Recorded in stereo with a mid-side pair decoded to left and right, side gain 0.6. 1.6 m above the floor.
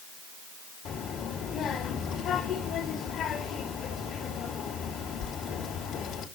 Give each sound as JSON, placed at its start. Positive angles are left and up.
{"t": 0.8, "sound": "a child speaking", "azimuth_deg": 50, "distance_m": 2.5}